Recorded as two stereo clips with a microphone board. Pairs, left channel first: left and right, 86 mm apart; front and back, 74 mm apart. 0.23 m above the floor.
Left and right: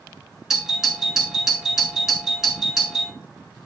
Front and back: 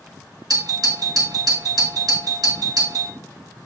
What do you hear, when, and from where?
0.5 s a doorbell: 175° right, 4 m